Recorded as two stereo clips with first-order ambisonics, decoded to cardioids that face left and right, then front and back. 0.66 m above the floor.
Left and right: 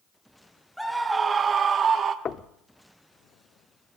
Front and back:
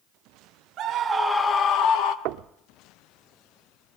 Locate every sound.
0.8 s a scream: straight behind, 0.9 m; by 2.1 s 30° right, 1.5 m
2.2 s knocking: 155° left, 0.8 m